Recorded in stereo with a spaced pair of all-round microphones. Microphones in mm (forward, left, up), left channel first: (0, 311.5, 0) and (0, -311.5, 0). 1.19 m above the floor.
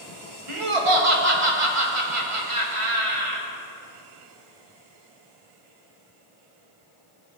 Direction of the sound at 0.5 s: 55° right (ahead or behind).